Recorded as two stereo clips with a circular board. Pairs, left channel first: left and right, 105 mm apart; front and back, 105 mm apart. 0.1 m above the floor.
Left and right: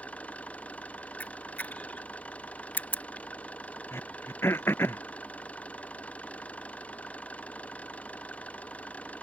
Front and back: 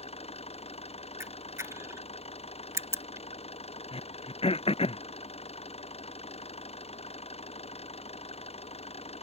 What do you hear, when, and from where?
0.0 s an engine running: 10° left
1.2 s a camera shutter: 150° left
3.9 s throat clearing: 20° left